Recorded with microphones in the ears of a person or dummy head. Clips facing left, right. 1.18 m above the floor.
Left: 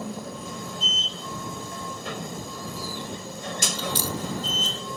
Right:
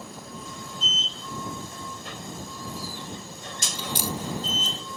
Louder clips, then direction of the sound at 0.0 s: Left 6 dB; 65° left (ahead or behind).